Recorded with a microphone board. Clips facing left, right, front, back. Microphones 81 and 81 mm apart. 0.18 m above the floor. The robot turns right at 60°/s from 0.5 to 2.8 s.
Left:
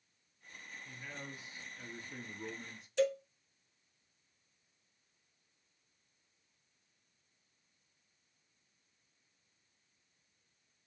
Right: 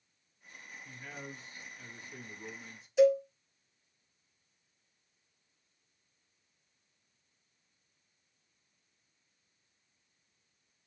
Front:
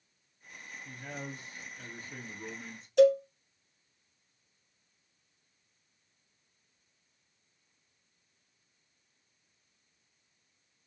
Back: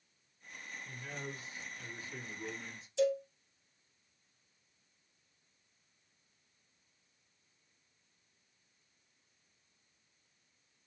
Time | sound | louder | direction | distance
0.8 | a man speaking | right 2 dB, front 3 dB | 20° right | 3.5 m
3.0 | a cowbell | right 9 dB, front 10 dB | 10° right | 0.8 m